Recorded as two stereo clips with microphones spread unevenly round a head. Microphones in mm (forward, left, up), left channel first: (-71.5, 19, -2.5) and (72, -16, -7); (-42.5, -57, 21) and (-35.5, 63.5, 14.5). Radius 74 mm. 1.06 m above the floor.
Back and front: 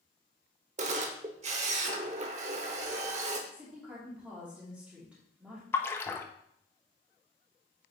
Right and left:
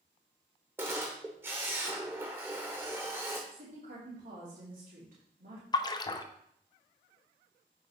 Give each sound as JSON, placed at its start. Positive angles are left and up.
{"t": 0.8, "sound": "a camera shutter", "azimuth_deg": 15, "distance_m": 0.9}
{"t": 3.5, "sound": "a woman speaking", "azimuth_deg": 70, "distance_m": 2.5}
{"t": 5.7, "sound": "a splash", "azimuth_deg": -125, "distance_m": 0.6}